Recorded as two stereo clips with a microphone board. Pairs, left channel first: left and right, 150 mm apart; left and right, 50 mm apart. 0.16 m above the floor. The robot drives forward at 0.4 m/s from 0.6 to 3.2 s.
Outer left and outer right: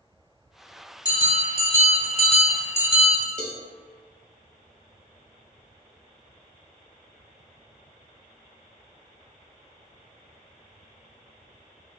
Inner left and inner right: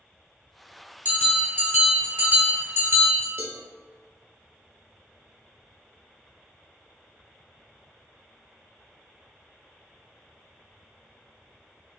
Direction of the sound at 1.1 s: 30° right (ahead or behind).